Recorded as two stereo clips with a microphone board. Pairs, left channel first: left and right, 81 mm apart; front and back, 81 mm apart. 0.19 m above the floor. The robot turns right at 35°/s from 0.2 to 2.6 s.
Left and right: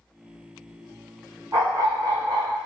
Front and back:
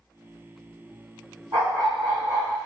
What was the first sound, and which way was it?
A dog barking, 140° right.